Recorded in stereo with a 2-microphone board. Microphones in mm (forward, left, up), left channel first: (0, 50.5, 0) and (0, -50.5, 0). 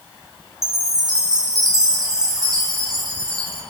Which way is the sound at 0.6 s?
40° right (ahead or behind).